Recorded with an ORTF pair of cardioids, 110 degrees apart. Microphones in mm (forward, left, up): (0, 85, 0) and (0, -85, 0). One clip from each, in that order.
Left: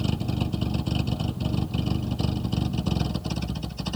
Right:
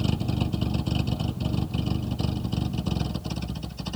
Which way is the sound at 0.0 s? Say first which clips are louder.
Even; straight ahead.